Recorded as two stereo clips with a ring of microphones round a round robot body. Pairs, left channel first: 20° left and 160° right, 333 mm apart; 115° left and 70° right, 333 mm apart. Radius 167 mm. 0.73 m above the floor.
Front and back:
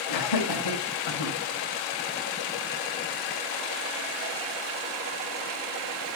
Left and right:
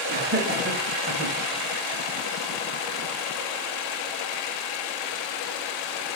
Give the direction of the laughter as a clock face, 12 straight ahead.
12 o'clock.